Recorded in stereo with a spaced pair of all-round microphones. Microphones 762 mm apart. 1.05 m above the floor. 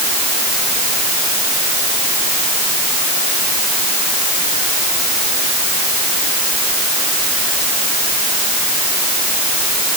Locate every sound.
Only background noise.